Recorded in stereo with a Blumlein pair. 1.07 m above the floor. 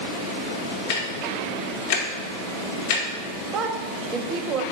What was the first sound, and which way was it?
Ticking, 45° left.